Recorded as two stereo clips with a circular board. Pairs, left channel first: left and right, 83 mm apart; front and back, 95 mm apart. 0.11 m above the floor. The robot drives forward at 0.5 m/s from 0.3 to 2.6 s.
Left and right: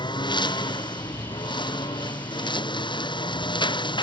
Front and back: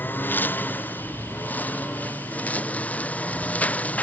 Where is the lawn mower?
70° left; by 4.0 s 75° left.